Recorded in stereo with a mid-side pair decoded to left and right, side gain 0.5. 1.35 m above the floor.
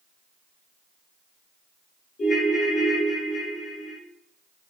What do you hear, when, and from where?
2.2 s a ringtone: 50° left, 1.0 m